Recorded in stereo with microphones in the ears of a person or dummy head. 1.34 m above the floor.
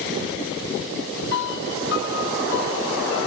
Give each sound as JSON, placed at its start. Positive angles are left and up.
{"t": 1.3, "sound": "a piano", "side_deg": 65}